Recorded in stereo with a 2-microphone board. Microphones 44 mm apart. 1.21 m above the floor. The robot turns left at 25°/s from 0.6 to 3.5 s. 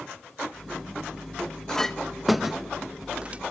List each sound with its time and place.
1.7 s a clink: 10° left (ahead or behind), 0.7 m; by 3.4 s 30° right (ahead or behind), 0.7 m